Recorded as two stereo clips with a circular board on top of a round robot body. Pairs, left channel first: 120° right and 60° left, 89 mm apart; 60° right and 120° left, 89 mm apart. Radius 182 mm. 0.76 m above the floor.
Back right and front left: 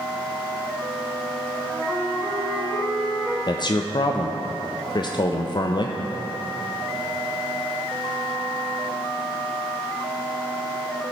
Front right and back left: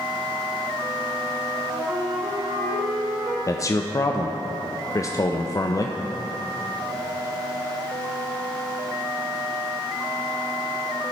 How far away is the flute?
About 1.4 m.